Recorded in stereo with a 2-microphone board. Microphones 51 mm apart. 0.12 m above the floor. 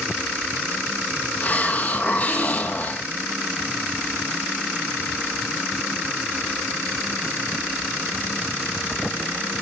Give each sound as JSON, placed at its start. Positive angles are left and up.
{"t": 1.4, "sound": "a hiss", "side_deg": 35, "distance_m": 1.5}